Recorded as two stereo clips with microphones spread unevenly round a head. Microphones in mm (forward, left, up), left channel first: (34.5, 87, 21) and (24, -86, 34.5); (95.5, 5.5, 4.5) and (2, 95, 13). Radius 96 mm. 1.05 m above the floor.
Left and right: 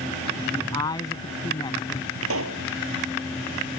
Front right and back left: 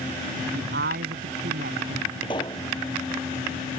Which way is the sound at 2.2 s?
110° right.